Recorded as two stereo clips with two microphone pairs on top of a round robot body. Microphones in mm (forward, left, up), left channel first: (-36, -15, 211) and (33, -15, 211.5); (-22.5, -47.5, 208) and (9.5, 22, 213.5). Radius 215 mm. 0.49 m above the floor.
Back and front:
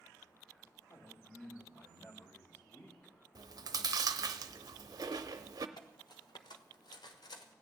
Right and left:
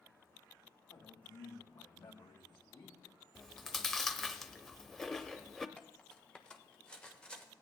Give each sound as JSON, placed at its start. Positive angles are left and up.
{"t": 0.9, "sound": "a man speaking", "azimuth_deg": -130, "distance_m": 4.5}
{"t": 3.4, "sound": "chewing", "azimuth_deg": -30, "distance_m": 0.7}
{"t": 5.8, "sound": "cutlery clinking", "azimuth_deg": 165, "distance_m": 1.3}